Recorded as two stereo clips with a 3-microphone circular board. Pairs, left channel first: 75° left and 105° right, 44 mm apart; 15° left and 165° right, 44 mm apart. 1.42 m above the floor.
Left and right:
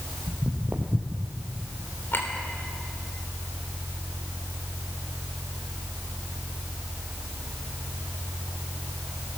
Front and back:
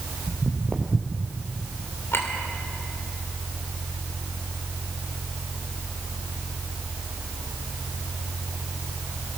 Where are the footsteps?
135° right, 2 m; by 1.3 s 95° right, 1.6 m.